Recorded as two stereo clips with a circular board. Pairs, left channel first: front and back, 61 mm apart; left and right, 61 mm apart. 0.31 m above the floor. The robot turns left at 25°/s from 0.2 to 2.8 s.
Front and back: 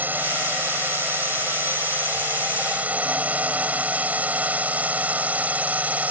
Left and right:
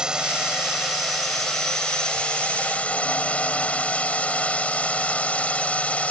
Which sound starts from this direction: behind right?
A drone, at 0.0 s.